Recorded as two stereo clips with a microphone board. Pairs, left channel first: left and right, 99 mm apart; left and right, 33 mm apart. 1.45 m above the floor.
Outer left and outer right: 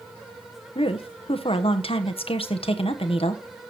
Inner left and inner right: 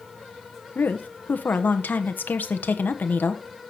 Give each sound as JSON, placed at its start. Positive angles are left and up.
{"t": 0.8, "sound": "a woman speaking", "side_deg": 70, "distance_m": 1.0}